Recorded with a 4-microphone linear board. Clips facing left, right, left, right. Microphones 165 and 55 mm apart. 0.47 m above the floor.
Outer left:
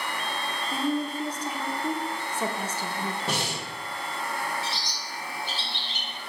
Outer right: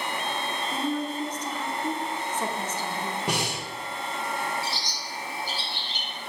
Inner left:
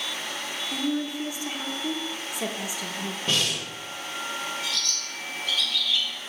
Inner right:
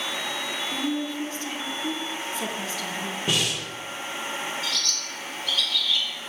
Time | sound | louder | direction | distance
0.7 | a woman speaking | outer left 2 dB, inner left 2 dB | 10° left (ahead or behind) | 0.7 m
3.3 | breathing | outer right 1 dB, even | 15° right (ahead or behind) | 1.3 m
4.6 | a bird | outer right 1 dB, inner right 1 dB | 25° left (ahead or behind) | 1.8 m